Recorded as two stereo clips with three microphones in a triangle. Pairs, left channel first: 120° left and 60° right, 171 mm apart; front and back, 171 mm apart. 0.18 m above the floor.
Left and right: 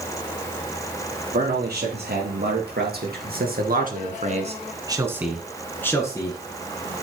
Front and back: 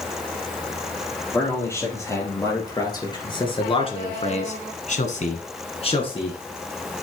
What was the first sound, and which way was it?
A man speaking, 75° right.